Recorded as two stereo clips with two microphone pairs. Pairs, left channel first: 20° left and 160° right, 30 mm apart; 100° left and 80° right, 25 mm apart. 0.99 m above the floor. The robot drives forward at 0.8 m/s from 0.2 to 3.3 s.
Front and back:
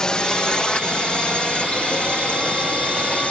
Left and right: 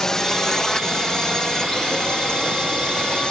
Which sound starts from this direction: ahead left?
A drone, at 0.0 s.